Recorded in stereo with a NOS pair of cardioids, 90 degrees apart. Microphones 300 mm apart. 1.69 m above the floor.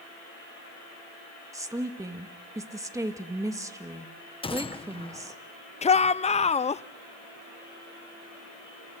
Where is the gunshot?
20° left, 1.3 m.